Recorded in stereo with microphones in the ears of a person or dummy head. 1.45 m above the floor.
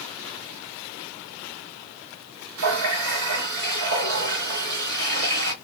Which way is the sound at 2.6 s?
60° right (ahead or behind).